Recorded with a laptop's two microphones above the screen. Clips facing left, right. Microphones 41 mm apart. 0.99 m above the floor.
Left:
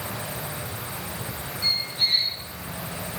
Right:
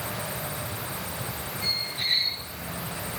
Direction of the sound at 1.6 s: 60° right (ahead or behind).